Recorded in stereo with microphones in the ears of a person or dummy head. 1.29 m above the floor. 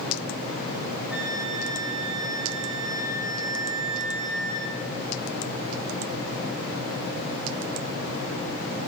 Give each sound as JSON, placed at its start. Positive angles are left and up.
{"t": 1.1, "sound": "a flute", "side_deg": -5, "distance_m": 9.5}